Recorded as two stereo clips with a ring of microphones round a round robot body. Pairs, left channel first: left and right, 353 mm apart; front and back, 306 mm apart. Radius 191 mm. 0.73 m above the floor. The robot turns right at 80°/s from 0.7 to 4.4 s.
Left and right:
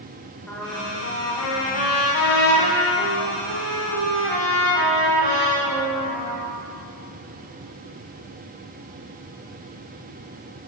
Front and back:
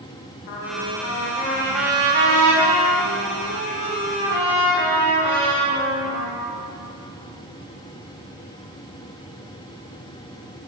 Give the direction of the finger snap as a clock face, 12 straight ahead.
I don't hear a finger snap.